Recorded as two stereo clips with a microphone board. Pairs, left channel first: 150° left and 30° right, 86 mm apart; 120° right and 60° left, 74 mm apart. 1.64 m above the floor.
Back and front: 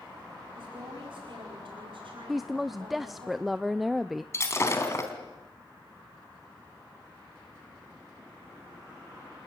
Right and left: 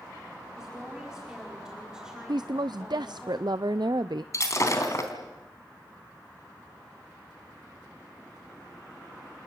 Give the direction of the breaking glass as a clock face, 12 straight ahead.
5 o'clock.